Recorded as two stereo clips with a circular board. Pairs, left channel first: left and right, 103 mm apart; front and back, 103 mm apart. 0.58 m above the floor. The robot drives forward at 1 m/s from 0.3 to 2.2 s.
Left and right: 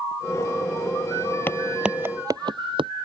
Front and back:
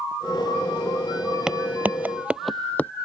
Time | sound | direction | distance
1.5 | footsteps | 105° left | ?